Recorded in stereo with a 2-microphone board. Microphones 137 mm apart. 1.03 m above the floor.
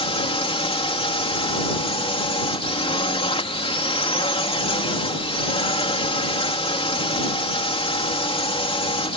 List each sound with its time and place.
0.0 s a drone: 45° left (ahead or behind)